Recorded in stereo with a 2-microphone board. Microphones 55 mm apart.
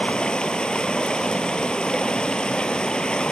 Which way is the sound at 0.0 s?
15° left (ahead or behind).